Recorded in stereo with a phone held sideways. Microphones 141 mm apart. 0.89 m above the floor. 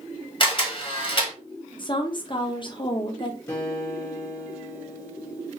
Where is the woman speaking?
35° left (ahead or behind), 0.5 m.